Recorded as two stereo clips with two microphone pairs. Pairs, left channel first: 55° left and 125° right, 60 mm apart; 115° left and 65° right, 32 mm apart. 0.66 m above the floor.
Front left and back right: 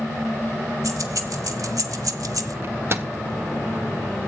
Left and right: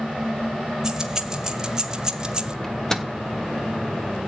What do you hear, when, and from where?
0.8 s keys jangling: 140° right, 1.8 m; by 2.5 s 130° right, 0.8 m
2.6 s a microwave: 170° right, 1.0 m